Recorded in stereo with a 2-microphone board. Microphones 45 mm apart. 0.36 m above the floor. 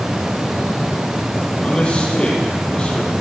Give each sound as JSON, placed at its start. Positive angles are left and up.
{"t": 1.6, "sound": "a man speaking", "side_deg": 25, "distance_m": 9.0}